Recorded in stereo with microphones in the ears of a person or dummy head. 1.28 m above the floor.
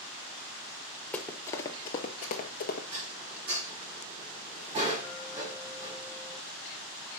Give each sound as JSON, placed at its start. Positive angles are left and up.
{"t": 1.1, "sound": "running footsteps", "side_deg": 10, "distance_m": 1.4}
{"t": 2.9, "sound": "dishes clattering", "side_deg": -30, "distance_m": 6.5}